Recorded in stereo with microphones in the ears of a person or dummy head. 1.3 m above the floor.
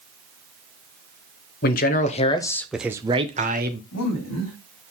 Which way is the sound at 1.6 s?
50° left (ahead or behind).